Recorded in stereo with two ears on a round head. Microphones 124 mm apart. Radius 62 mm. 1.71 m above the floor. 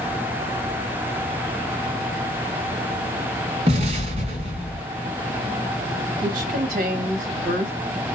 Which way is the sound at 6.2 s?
65° right (ahead or behind).